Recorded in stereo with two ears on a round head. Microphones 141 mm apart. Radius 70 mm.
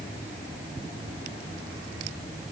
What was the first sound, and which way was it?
Only background noise.